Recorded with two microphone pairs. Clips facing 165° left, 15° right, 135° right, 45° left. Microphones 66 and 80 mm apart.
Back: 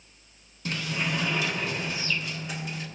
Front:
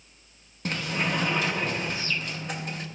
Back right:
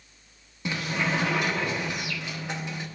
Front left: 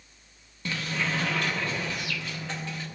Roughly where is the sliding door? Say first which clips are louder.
Front 2 dB, back right 2 dB; ahead right.